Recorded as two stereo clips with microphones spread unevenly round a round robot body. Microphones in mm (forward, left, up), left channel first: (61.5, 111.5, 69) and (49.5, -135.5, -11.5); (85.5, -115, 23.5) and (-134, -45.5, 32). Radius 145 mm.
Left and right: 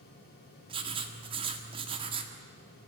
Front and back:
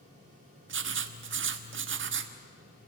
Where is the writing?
160° right, 1.6 m.